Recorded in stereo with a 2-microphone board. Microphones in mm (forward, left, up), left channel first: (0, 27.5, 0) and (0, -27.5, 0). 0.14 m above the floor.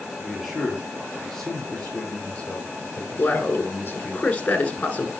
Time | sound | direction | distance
0.2 | a man speaking | 5° right (ahead or behind) | 3 m
3.2 | a man speaking | 25° left (ahead or behind) | 1.5 m